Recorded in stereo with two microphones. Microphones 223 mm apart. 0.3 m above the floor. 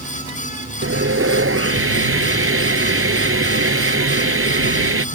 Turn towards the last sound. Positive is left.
turn(degrees=-75)  # may be behind; listen again after turning